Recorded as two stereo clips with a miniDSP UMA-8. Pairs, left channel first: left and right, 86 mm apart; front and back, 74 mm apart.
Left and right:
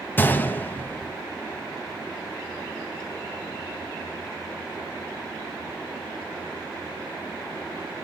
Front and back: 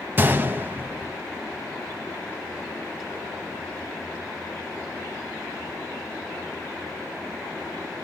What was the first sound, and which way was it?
A gunshot, 140° left.